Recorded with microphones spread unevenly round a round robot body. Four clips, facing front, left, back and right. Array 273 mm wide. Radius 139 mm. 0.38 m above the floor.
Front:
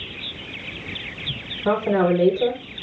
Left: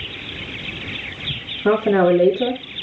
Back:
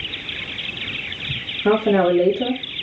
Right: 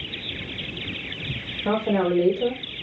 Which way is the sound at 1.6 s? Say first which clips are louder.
Left 7 dB, back 3 dB; 125° left.